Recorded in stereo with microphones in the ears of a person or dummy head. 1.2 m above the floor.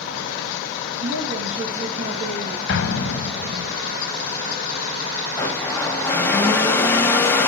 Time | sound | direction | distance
1.0 | a woman speaking | 35° right (ahead or behind) | 2 m
2.7 | an explosion | 65° left (ahead or behind) | 1.5 m
5.4 | a blender | 15° left (ahead or behind) | 1.0 m